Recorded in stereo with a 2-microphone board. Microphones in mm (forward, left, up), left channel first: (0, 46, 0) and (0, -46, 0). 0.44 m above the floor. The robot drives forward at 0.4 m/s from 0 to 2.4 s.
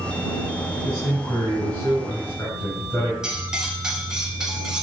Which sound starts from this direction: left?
A man speaking, at 0.8 s.